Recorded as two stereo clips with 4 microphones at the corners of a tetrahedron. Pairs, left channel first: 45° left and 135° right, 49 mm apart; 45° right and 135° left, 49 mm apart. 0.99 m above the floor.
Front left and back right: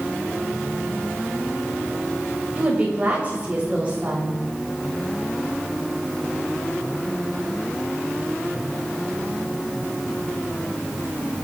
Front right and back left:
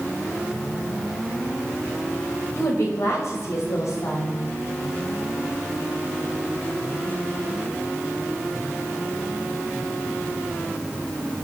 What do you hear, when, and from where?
2.6 s a woman speaking: 70° right, 6 m